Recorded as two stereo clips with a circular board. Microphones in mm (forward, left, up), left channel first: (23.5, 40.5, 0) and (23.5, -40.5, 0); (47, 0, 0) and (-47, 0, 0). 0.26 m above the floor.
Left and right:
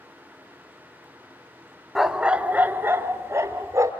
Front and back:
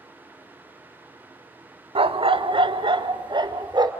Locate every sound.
1.9 s a dog barking: straight behind, 0.7 m; by 3.9 s 135° right, 1.6 m